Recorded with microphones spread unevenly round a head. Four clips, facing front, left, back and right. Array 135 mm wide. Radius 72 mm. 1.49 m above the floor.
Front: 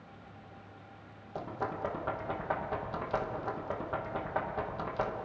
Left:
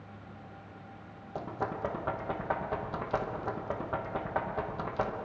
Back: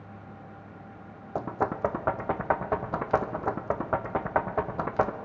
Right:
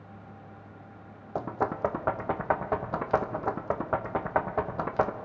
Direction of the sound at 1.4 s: 140° right.